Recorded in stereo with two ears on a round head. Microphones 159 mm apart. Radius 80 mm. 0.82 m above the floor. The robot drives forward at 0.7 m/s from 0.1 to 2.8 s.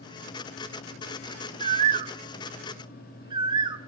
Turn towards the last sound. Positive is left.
turn(degrees=-25)  # may be behind; listen again after turning